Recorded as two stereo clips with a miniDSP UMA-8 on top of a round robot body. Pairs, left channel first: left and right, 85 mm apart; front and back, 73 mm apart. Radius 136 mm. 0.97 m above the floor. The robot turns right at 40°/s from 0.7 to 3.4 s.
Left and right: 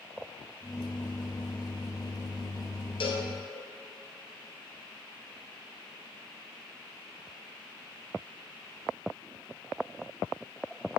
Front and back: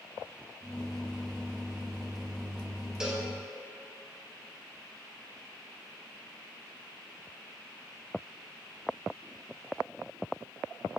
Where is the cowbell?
100° left, 1.1 m; by 3.3 s 110° left, 1.1 m.